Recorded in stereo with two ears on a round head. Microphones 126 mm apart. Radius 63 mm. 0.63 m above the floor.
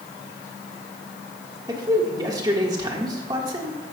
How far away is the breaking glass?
I don't hear breaking glass.